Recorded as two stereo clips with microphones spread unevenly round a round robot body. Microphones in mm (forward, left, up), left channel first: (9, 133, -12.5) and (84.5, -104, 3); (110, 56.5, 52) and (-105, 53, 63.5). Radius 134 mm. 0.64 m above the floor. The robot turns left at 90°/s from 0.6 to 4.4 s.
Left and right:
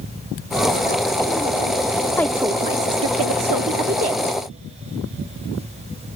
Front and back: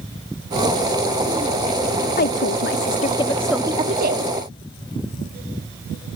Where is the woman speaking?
30° left; by 4.3 s 160° right.